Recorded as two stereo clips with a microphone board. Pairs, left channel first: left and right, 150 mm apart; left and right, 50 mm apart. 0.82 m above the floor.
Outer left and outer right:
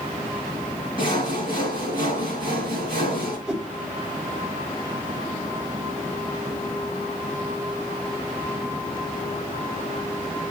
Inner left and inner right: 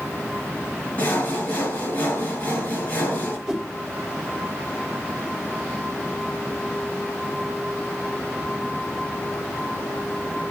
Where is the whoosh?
5° right (ahead or behind), 0.9 m.